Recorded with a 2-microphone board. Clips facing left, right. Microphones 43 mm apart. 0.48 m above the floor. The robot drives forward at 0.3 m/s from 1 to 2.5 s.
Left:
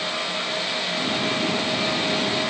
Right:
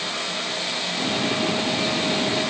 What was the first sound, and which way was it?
Only background noise.